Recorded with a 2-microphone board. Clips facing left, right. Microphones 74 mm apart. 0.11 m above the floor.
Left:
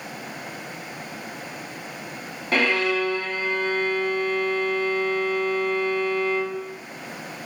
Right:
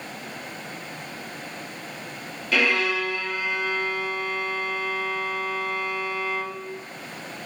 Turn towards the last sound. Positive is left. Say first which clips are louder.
# left 1 dB
turn(degrees=35)  # may be behind; listen again after turning